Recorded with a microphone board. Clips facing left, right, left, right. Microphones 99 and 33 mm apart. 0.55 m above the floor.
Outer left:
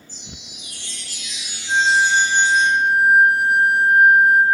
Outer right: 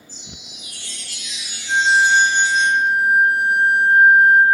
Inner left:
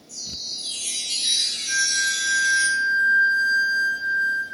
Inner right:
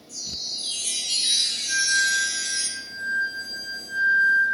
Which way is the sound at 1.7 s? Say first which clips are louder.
Outer right 1 dB, inner right 1 dB; 5° left (ahead or behind).